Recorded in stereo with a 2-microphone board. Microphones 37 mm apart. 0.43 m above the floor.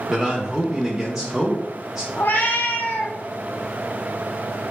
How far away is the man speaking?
About 0.8 m.